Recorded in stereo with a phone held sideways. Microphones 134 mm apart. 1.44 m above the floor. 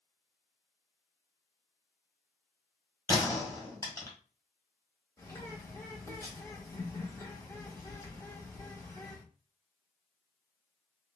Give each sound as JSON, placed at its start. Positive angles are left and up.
{"t": 3.1, "sound": "a gunshot", "side_deg": 25, "distance_m": 1.7}
{"t": 5.2, "sound": "a bird", "side_deg": 25, "distance_m": 1.1}